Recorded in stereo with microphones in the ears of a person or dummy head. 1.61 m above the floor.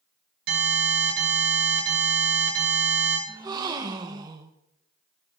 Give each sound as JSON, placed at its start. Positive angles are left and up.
{"t": 0.5, "sound": "an alarm", "side_deg": -60, "distance_m": 7.5}
{"t": 3.3, "sound": "a gasp", "side_deg": -20, "distance_m": 1.0}